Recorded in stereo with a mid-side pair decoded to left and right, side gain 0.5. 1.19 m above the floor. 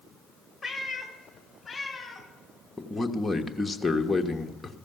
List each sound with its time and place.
0.6 s a cat meowing: 20° left, 1.7 m
2.8 s a man speaking: 10° left, 1.1 m